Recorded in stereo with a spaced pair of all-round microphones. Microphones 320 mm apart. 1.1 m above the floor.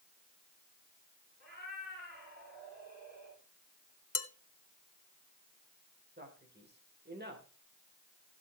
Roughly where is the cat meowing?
Right.